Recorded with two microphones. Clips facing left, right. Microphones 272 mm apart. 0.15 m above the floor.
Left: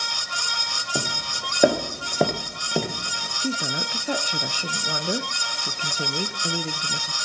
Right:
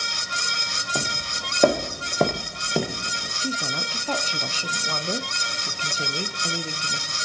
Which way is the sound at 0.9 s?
10° left (ahead or behind).